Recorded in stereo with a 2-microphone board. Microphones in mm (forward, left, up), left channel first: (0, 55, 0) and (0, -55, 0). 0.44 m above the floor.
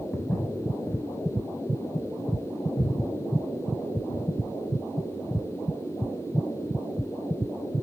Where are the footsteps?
20° left (ahead or behind), 1.3 m; by 4.2 s 60° left (ahead or behind), 4 m.